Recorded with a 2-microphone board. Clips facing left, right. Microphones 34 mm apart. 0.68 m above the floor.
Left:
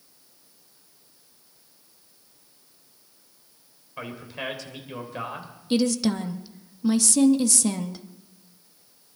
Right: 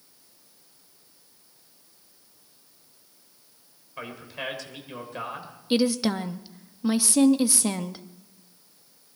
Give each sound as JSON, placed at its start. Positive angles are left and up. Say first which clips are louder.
{"t": 4.0, "sound": "a man speaking", "louder": "left 1 dB", "side_deg": 0, "distance_m": 3.0}
{"t": 5.7, "sound": "a woman speaking", "louder": "even", "side_deg": -20, "distance_m": 0.7}